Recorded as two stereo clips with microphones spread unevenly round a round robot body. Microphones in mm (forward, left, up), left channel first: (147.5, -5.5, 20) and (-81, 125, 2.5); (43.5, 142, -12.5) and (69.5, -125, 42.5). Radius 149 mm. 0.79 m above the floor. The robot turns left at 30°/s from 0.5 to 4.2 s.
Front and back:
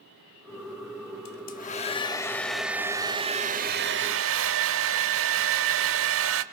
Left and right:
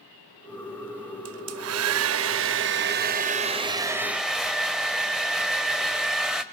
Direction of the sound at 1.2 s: 80° right.